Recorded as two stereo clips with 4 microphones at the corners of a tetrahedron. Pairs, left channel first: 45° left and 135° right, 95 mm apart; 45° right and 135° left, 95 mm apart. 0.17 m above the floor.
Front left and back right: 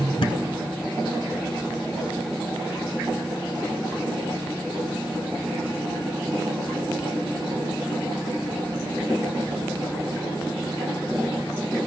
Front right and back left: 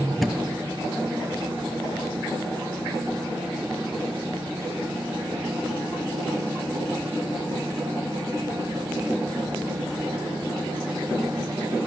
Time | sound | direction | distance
0.2 | a thud | 45° left | 0.7 m